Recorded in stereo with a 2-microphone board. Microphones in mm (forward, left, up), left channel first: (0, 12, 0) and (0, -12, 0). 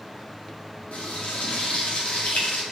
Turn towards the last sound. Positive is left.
turn(degrees=80)